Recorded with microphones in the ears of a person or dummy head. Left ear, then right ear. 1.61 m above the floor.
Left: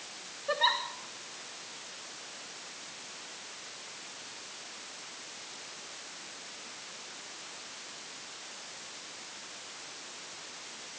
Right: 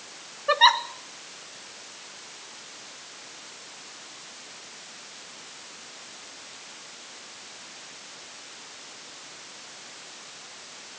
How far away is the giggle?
About 0.6 m.